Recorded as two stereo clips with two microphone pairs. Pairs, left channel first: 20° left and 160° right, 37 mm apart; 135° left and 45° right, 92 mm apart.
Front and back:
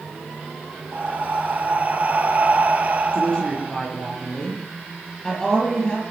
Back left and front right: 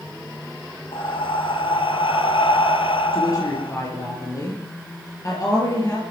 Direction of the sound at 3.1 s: 90° left.